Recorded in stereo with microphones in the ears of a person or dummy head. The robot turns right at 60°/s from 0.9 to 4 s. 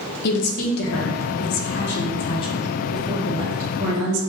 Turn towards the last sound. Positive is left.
turn(degrees=-115)